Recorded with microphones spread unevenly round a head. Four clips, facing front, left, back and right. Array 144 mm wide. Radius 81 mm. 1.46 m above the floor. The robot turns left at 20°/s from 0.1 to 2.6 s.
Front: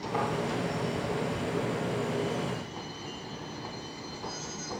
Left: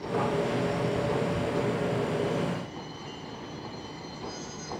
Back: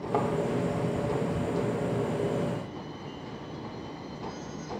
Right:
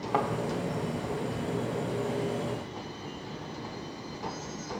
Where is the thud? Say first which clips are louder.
Even, back 3 dB; 135° right, 2.5 m.